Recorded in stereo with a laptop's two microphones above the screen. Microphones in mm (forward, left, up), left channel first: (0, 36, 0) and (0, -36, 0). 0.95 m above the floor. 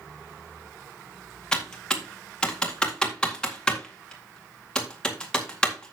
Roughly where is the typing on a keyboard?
Centre.